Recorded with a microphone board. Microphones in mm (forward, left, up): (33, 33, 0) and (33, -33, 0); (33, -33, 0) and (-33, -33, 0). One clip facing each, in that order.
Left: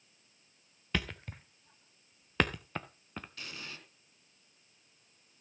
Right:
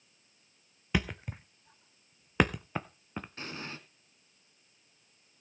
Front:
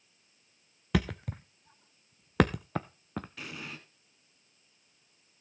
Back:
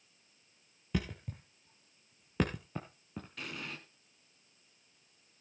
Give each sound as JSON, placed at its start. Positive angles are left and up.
{"t": 0.9, "sound": "a thud", "azimuth_deg": -10, "distance_m": 0.9}
{"t": 3.4, "sound": "an explosion", "azimuth_deg": -85, "distance_m": 1.6}